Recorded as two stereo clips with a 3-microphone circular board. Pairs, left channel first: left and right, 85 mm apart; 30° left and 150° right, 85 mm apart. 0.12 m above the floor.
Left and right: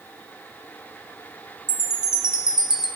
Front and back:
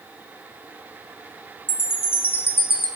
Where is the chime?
15° right, 1.3 m.